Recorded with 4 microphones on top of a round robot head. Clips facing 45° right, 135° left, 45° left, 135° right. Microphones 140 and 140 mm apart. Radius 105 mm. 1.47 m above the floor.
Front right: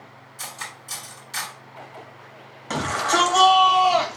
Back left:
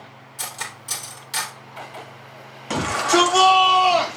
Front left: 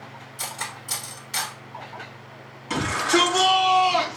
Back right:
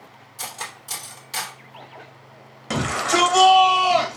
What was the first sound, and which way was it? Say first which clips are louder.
Cutlery clinking: back left 3 dB, even; 165° left.